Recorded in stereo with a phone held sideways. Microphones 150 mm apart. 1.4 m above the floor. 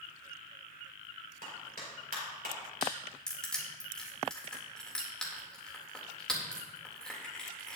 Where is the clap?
80° right, 4.5 m.